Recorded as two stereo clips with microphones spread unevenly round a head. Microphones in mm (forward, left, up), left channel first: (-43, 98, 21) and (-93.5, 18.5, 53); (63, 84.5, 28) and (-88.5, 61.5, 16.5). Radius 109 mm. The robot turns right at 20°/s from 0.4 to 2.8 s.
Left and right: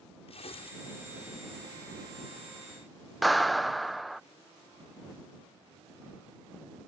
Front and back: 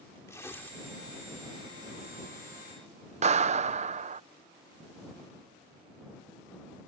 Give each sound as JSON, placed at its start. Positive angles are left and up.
{"t": 0.3, "sound": "tearing paper", "azimuth_deg": 80}
{"t": 3.2, "sound": "a clap", "azimuth_deg": 180}